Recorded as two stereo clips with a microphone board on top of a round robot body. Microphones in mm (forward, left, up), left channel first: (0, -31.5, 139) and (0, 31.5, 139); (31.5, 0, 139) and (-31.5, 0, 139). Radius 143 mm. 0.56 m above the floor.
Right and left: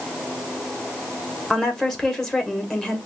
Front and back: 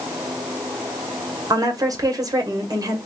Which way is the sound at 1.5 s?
170° right.